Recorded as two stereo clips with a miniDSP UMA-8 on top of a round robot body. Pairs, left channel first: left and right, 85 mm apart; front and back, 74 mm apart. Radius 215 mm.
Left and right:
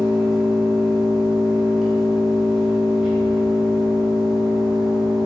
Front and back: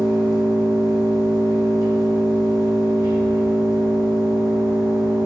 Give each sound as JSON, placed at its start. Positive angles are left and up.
{"t": 0.0, "sound": "an engine running", "azimuth_deg": -175, "distance_m": 1.7}